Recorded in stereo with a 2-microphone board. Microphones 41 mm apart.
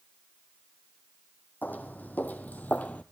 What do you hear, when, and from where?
1.6 s footsteps: 50° left (ahead or behind), 1.7 m; by 3.0 s 40° left (ahead or behind), 1.1 m